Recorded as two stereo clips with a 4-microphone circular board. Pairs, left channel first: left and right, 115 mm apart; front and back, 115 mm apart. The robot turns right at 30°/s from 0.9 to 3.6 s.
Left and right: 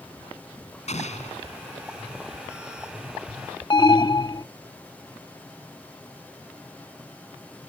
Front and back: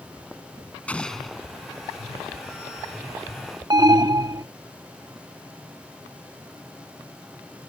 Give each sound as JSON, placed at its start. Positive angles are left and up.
{"t": 0.9, "sound": "an explosion", "azimuth_deg": 80}
{"t": 3.7, "sound": "an alarm", "azimuth_deg": 135}